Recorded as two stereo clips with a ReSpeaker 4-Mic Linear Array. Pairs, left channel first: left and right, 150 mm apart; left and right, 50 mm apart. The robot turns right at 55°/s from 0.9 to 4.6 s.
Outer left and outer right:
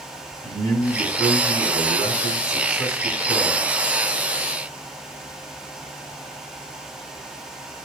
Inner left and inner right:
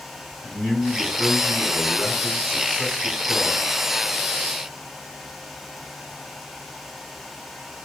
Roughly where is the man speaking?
Ahead left.